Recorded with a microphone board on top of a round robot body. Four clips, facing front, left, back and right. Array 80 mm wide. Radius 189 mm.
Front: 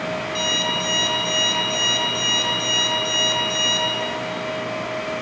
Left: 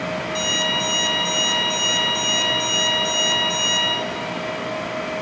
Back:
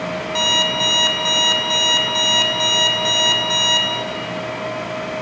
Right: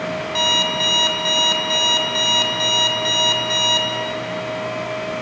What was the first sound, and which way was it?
An alarm clock, 145° right.